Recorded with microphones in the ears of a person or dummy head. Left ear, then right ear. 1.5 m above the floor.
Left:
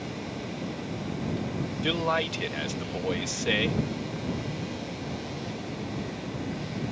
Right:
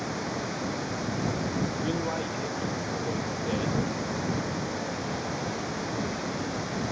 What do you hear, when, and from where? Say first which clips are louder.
0.0 s running water: right 4 dB; 60° right (ahead or behind)
1.8 s a man speaking: left 4 dB; 60° left (ahead or behind)